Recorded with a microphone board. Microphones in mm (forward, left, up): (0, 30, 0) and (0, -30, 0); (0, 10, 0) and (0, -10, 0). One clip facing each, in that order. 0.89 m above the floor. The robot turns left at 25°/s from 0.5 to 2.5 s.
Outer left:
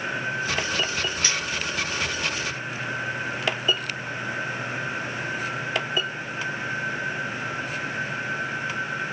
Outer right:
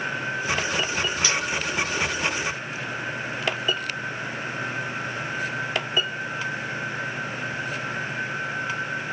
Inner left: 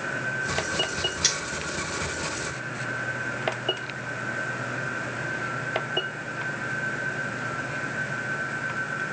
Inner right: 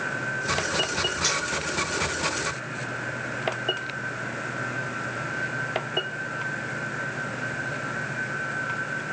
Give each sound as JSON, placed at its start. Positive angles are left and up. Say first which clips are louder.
{"t": 1.2, "sound": "cutlery clinking", "louder": "outer right 2 dB, inner left 2 dB", "side_deg": 35, "distance_m": 2.5}